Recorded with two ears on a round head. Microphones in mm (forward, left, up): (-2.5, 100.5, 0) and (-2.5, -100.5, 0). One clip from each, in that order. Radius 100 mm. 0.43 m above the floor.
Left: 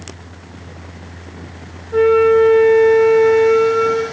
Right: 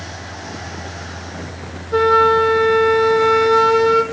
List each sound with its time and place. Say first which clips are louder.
1.9 s a flute: left 1 dB; 50° right (ahead or behind), 3.5 m